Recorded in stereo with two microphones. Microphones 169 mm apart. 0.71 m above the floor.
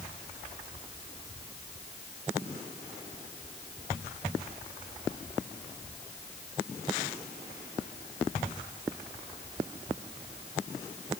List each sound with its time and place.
Only background noise.